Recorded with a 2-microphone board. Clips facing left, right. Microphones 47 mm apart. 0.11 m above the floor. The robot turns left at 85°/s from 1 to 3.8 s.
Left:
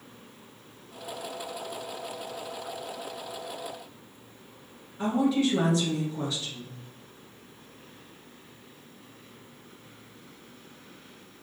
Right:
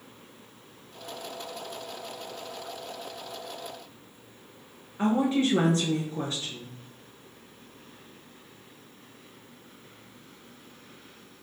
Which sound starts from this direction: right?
A woman speaking, at 5.0 s.